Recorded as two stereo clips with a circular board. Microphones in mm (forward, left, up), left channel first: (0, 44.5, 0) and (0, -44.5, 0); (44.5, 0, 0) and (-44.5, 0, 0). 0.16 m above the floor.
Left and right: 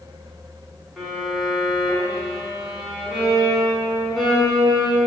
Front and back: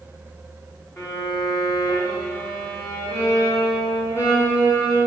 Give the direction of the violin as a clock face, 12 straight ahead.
12 o'clock.